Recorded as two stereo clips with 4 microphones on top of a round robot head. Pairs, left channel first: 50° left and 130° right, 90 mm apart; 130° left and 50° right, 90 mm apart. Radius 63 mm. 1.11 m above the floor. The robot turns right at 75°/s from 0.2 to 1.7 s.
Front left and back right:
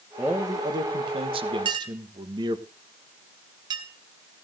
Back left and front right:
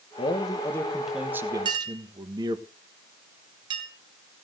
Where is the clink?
95° right, 2.5 m; by 3.9 s 90° right, 2.5 m.